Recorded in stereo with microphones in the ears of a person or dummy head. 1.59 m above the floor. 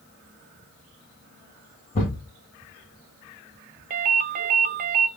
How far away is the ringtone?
About 0.6 m.